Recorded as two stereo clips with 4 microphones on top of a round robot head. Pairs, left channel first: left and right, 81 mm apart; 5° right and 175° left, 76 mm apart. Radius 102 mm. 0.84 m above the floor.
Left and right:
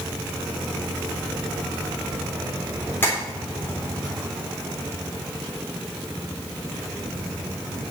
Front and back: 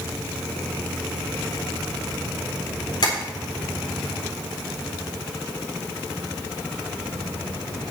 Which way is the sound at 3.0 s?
20° left.